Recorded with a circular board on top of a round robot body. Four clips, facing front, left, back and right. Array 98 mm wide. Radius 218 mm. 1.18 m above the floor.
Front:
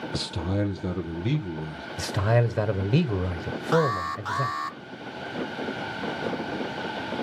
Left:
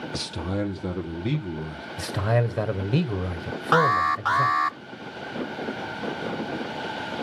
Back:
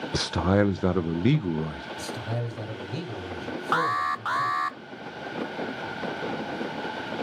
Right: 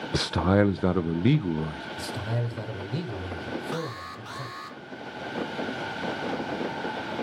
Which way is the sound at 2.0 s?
40° left.